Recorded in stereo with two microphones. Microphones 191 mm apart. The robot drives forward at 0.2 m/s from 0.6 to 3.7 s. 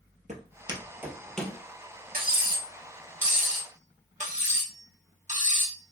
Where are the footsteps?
40° right (ahead or behind), 0.8 m; by 1.6 s 10° left (ahead or behind), 0.9 m.